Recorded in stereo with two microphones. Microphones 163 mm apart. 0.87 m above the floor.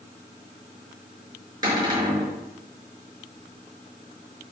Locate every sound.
1.6 s a cupboard door: 25° right (ahead or behind), 5.5 m